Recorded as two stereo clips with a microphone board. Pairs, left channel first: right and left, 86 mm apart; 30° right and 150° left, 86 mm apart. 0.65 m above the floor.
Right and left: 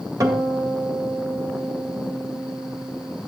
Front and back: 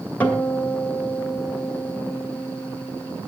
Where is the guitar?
45° left, 1.5 m.